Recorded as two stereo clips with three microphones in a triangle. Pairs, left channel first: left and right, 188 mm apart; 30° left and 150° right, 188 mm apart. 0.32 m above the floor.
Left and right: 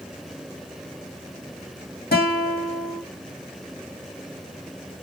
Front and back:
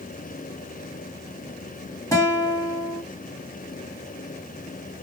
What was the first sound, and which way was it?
A guitar, 100° left.